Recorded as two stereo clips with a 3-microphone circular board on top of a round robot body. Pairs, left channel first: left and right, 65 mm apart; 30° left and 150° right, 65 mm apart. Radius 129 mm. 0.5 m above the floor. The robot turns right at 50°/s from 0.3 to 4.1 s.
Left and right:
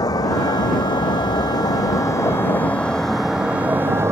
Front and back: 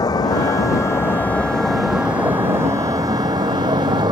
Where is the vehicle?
55° left; by 4.1 s 145° right.